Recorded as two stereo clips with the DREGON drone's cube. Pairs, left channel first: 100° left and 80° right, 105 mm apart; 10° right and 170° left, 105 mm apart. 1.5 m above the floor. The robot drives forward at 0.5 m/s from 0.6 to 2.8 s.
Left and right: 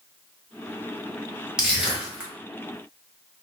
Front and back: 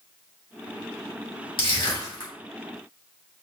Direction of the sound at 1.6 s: Straight ahead.